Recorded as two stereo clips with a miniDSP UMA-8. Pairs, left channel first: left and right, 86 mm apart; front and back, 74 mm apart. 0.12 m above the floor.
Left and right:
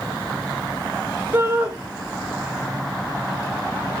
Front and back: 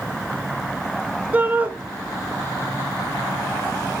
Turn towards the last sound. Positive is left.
turn(degrees=-130)